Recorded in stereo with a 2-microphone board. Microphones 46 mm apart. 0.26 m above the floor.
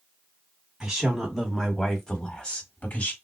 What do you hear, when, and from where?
0.8 s a woman speaking: 10° right (ahead or behind), 1.9 m; by 3.1 s 40° left (ahead or behind), 1.5 m